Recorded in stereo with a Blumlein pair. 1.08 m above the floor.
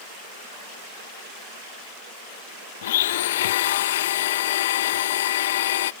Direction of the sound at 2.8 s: 55° left.